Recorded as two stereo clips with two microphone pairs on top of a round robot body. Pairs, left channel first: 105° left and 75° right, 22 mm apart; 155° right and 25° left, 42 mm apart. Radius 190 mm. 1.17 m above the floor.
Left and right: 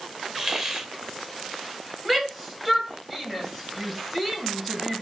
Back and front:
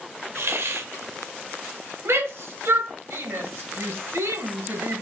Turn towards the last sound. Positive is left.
turn(degrees=20)